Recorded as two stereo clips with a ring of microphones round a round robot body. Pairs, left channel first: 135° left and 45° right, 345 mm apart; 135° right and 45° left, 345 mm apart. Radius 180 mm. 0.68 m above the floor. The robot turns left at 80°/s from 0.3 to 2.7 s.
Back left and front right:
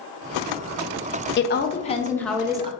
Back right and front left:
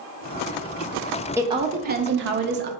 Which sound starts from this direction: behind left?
A woman speaking, at 1.4 s.